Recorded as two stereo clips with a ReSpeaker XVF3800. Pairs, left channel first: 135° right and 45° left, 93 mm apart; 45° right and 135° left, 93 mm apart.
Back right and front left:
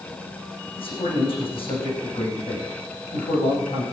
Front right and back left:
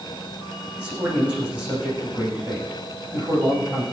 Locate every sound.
0.8 s a man speaking: 150° right, 9 m